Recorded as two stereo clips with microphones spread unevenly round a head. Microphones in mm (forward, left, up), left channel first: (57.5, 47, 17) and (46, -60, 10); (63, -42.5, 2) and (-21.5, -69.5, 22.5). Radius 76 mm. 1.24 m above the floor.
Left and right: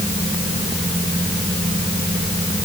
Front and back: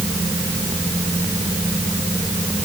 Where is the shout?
No shout in this recording.